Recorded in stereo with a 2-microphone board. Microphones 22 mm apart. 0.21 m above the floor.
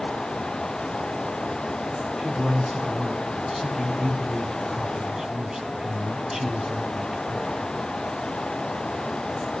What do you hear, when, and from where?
2.2 s a man speaking: 30° right (ahead or behind), 1.5 m